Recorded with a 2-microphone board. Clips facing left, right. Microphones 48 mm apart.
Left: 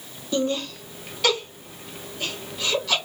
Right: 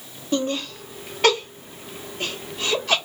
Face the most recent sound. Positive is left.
turn(degrees=-35)  # may be behind; listen again after turning